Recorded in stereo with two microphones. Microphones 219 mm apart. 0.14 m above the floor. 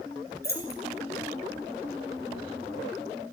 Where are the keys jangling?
50° left (ahead or behind), 1.4 m.